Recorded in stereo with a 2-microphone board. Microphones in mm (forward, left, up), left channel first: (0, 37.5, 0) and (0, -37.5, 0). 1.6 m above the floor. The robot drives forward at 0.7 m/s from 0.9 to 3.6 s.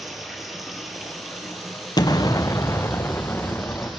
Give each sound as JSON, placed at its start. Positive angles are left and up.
{"t": 0.0, "sound": "running water", "side_deg": 0, "distance_m": 3.5}
{"t": 2.0, "sound": "an explosion", "side_deg": 65, "distance_m": 0.8}